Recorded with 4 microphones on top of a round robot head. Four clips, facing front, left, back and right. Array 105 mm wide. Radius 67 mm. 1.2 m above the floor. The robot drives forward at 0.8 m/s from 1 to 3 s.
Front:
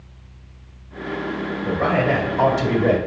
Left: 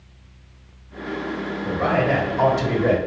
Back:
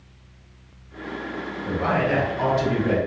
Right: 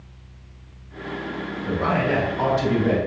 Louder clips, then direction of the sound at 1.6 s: Left 2 dB, front 3 dB; 25° left.